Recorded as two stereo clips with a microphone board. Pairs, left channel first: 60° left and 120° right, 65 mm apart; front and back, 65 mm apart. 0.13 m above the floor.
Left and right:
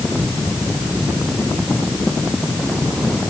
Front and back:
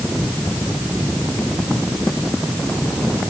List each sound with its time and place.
Only background noise.